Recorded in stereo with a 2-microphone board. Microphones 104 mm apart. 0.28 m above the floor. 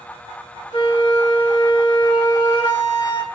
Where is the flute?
40° left (ahead or behind), 0.8 m.